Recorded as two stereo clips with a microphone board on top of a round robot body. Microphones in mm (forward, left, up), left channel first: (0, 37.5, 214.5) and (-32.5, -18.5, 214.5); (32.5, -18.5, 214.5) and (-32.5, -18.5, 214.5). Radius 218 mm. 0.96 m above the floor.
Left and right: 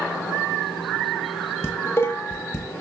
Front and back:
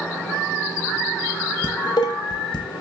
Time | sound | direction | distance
1.6 | dishes clattering | 5° left | 0.6 m